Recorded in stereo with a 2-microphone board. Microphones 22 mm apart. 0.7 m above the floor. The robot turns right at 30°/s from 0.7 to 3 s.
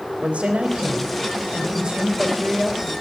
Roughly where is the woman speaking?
Right.